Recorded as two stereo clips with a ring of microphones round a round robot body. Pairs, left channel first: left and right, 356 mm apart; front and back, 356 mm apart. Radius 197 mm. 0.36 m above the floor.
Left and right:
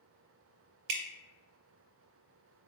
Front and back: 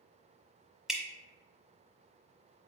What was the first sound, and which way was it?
Dripping, 90° right.